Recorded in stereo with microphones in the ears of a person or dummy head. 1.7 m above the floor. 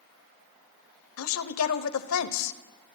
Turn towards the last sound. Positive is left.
turn(degrees=85)